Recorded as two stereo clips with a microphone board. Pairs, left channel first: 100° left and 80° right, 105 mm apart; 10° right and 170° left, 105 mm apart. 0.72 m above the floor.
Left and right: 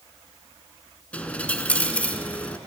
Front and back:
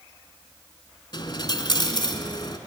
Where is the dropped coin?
25° left, 1.2 m.